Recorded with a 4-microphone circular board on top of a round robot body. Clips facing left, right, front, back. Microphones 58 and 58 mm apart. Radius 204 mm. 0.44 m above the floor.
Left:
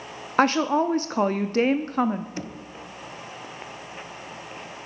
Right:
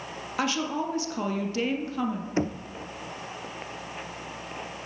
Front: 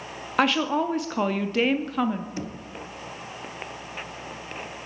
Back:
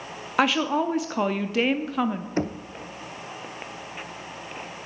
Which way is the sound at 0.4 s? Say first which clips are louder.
Left 8 dB, even; 90° left.